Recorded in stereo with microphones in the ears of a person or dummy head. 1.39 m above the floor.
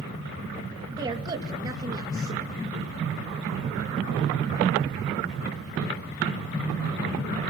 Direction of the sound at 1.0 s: 15° right (ahead or behind).